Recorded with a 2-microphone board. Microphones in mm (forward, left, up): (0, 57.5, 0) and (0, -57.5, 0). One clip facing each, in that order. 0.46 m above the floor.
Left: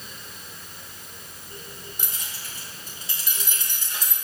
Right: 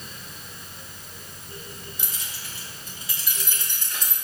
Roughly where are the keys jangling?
Left.